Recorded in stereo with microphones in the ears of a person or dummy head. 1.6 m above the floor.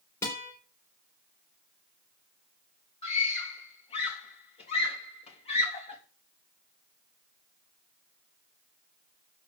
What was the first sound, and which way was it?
A guitar, 15° left (ahead or behind).